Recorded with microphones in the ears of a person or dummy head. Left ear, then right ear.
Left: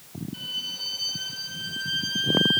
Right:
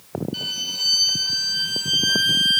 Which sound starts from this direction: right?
A violin, at 0.3 s.